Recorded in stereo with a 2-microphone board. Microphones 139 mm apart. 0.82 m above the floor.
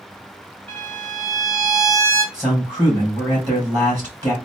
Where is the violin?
40° right (ahead or behind), 2 m.